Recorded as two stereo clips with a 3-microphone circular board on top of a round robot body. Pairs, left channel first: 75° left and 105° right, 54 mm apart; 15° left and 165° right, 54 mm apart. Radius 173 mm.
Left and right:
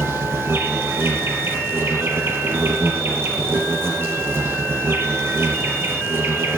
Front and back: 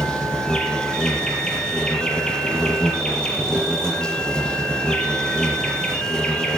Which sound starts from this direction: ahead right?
An insect, at 0.0 s.